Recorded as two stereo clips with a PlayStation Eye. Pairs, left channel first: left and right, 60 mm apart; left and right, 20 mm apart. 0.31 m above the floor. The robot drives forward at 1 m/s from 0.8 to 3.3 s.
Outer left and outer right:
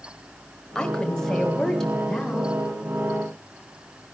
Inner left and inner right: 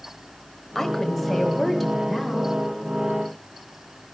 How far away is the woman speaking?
About 1.6 m.